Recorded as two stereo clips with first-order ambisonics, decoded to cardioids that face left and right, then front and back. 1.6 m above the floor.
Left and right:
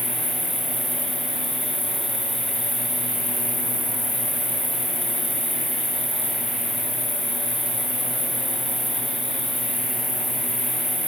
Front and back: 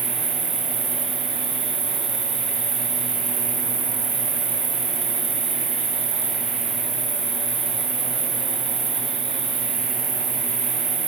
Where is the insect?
165° right, 0.8 m.